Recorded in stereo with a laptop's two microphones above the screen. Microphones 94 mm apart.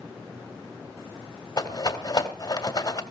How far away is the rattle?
About 2 m.